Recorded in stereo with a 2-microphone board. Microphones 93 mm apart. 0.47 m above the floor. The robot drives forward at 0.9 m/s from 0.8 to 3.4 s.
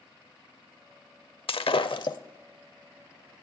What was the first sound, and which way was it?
Breaking glass, 75° left (ahead or behind).